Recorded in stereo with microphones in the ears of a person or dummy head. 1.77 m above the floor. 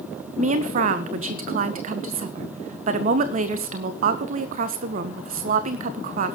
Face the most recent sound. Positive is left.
turn(degrees=-50)  # may be behind; listen again after turning